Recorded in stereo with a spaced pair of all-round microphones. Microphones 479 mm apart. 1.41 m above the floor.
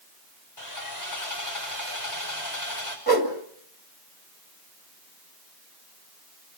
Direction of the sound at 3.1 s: 50° right (ahead or behind).